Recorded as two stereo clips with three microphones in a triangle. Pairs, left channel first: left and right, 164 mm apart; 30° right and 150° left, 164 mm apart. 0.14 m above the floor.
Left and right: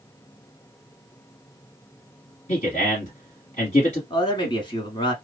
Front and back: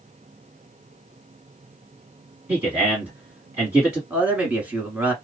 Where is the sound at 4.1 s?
80° left, 1.1 m.